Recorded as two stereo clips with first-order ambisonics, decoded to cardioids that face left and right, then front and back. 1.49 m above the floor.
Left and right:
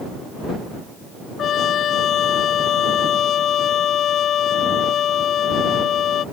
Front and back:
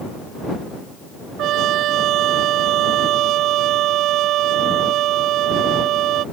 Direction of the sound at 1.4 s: 140° left.